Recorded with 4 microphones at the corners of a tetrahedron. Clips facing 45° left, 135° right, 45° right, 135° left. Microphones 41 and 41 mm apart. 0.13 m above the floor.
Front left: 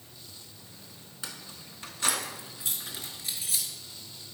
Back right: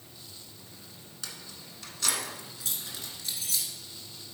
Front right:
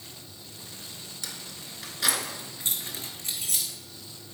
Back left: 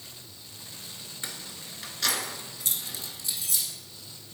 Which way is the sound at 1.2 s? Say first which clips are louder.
Front left 1 dB, back left 1 dB; 95° left.